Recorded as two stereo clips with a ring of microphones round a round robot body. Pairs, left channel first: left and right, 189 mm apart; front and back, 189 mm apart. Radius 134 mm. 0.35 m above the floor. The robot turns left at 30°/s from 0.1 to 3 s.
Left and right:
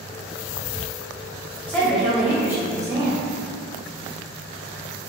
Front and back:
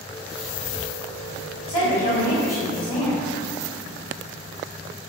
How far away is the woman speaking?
About 1.5 m.